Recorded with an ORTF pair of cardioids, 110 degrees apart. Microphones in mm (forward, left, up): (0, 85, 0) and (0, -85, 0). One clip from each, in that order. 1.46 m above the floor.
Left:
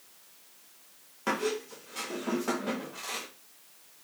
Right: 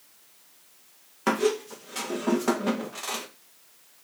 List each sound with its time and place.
1.3 s a squeak: 40° right, 1.1 m